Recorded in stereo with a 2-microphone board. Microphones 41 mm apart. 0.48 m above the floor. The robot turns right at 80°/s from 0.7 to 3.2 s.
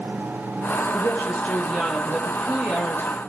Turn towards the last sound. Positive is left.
turn(degrees=-85)